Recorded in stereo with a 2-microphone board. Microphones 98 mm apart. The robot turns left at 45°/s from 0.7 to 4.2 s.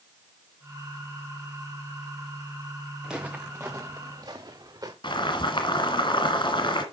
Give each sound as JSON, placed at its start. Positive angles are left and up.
{"t": 3.0, "sound": "footsteps", "side_deg": -5, "distance_m": 1.7}
{"t": 5.0, "sound": "boiling", "side_deg": 55, "distance_m": 1.9}